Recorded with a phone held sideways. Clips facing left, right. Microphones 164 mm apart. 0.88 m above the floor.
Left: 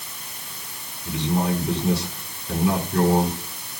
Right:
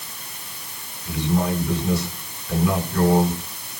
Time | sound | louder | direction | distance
1.1 | a man speaking | right 1 dB | 30° left (ahead or behind) | 9.5 m